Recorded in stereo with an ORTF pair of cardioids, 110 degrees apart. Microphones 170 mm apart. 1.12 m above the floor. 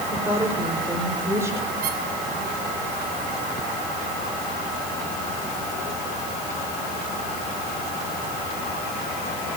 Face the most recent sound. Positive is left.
turn(degrees=-60)